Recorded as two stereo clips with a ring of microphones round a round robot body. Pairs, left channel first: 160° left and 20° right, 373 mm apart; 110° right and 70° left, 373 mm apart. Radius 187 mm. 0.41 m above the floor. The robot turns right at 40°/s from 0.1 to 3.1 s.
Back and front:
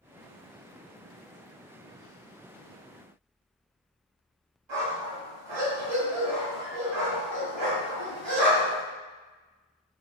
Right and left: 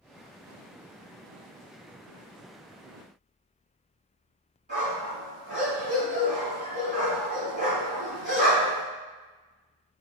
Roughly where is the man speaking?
I don't hear a man speaking.